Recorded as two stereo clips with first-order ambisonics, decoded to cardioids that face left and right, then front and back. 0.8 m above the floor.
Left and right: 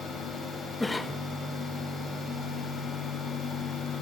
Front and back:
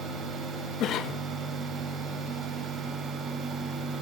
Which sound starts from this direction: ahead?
A cough, at 0.8 s.